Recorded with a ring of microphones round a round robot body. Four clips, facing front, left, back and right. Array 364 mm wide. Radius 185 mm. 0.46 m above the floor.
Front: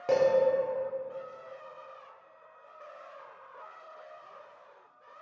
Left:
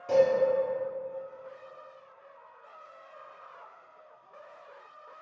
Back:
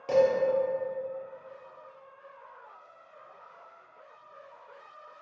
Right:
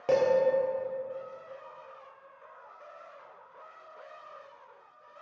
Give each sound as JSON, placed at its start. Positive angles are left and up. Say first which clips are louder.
{"t": 0.1, "sound": "dishes clattering", "louder": "left 2 dB, back 2 dB", "azimuth_deg": -70, "distance_m": 0.6}